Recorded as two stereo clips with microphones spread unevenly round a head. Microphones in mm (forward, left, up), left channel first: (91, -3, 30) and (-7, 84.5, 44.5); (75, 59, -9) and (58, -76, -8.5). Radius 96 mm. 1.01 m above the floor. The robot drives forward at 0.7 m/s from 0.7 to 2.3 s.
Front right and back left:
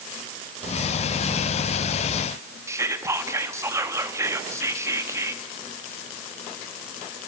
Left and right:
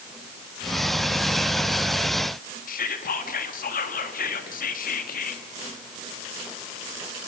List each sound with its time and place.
2.7 s whispering: 70° left, 1.5 m